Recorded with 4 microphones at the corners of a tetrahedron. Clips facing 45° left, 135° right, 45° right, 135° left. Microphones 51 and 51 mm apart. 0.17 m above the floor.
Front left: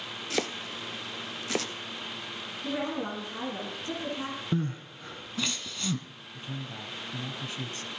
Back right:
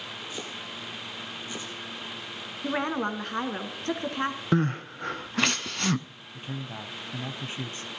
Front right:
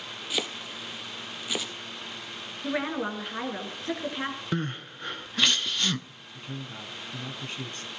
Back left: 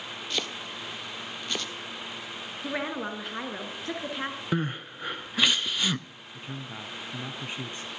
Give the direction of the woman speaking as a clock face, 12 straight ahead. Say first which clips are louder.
Back right 4 dB, front right 3 dB; 4 o'clock.